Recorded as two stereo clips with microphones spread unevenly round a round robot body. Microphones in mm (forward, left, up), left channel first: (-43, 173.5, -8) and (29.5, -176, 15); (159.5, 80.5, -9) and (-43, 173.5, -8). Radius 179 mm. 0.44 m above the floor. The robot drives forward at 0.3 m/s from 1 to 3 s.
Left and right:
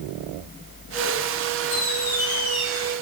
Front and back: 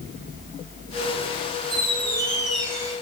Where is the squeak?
110° left, 1.2 m; by 2.9 s 125° left, 1.4 m.